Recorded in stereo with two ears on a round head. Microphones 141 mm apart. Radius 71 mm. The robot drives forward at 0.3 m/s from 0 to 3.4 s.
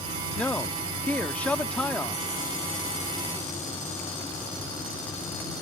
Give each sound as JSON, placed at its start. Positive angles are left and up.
{"t": 0.4, "sound": "a man speaking", "side_deg": 10}